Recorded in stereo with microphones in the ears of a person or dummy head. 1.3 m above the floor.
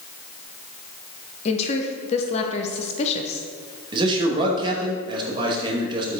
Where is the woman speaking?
35° left (ahead or behind), 0.8 m.